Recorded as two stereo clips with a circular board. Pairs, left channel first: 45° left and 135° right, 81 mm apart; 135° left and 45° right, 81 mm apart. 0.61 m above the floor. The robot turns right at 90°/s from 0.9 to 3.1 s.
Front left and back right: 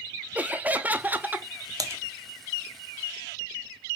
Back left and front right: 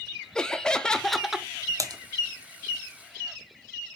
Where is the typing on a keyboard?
95° right, 0.8 m; by 2.0 s 75° right, 0.8 m.